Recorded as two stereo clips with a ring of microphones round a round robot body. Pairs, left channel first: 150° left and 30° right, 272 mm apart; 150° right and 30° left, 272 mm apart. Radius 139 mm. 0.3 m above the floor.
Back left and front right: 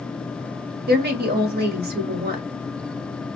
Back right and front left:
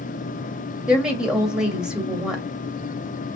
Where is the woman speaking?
55° right, 1.7 m.